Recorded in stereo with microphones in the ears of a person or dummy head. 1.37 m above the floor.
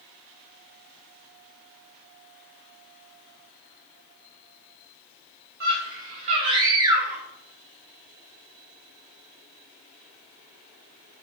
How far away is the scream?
About 1.5 m.